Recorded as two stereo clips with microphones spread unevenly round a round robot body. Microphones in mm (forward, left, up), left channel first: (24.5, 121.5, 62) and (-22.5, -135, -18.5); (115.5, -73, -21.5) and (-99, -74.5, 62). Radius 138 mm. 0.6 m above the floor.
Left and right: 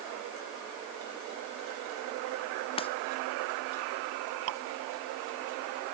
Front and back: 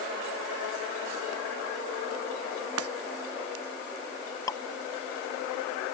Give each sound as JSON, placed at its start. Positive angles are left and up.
{"t": 2.8, "sound": "breaking glass", "azimuth_deg": 150}
{"t": 4.5, "sound": "dripping", "azimuth_deg": -75}